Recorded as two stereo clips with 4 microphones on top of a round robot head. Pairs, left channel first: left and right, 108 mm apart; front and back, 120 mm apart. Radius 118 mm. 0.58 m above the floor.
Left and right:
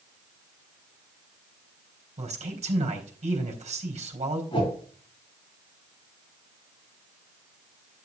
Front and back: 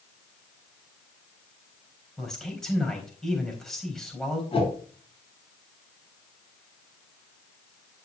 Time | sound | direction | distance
2.2 | a man speaking | 90° right | 4 m
4.5 | a whoosh | 40° left | 9 m